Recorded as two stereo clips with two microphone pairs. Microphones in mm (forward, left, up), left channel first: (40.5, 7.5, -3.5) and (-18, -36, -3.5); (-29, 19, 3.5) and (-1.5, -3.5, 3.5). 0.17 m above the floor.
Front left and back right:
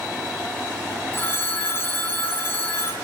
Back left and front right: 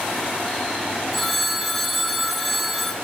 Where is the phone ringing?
60° left, 0.7 m.